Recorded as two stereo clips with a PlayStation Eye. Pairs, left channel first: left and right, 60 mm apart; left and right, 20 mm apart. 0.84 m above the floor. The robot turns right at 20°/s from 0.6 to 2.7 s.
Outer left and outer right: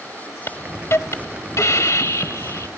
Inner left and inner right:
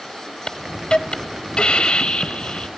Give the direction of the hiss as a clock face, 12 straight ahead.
10 o'clock.